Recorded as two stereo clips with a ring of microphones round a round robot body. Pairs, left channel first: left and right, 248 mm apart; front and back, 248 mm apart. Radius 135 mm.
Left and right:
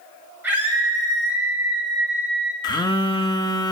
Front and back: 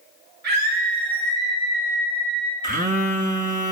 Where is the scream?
170° right, 7.5 m.